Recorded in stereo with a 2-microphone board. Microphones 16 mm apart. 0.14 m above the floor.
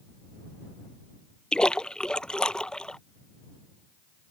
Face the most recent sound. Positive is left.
turn(degrees=60)  # may be behind; listen again after turning